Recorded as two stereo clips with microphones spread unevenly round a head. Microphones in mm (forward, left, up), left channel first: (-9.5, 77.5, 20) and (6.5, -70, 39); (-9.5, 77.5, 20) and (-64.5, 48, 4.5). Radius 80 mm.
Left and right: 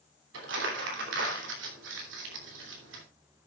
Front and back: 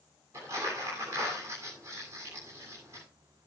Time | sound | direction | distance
0.3 | crumpling | 85° right | 3 m